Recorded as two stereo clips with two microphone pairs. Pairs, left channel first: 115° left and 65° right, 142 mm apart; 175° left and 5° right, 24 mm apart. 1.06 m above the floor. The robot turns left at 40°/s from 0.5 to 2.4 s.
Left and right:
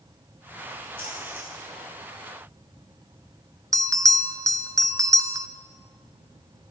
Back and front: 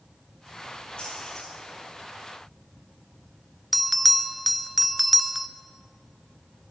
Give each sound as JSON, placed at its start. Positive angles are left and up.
{"t": 1.0, "sound": "a splash", "azimuth_deg": 130, "distance_m": 7.0}
{"t": 3.7, "sound": "a bell", "azimuth_deg": -85, "distance_m": 0.5}